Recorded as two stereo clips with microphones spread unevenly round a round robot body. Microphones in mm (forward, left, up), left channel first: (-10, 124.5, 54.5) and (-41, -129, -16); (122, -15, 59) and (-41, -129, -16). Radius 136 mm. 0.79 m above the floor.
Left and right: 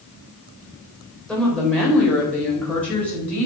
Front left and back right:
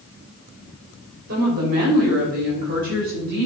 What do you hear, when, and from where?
1.3 s a woman speaking: 175° left, 3.5 m; by 3.5 s 170° left, 5 m